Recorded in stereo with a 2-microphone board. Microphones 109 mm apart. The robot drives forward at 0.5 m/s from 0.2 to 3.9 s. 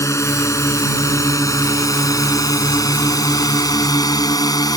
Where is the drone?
25° left (ahead or behind); by 4.8 s 35° left (ahead or behind).